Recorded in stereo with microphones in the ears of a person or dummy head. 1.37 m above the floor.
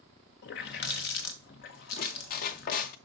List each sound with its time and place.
0.4 s a running tap: 40° left (ahead or behind), 0.8 m
2.0 s a squeak: 50° left (ahead or behind), 0.7 m